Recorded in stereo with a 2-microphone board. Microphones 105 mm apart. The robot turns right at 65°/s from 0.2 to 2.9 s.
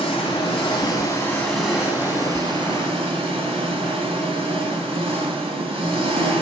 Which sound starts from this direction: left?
An engine running, at 0.0 s.